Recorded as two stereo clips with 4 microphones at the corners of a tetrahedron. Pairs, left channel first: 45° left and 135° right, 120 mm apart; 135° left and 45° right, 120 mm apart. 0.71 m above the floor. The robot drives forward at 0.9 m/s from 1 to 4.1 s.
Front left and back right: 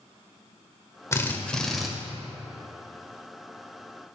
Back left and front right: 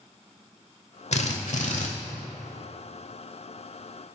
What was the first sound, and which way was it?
A drill, 110° left.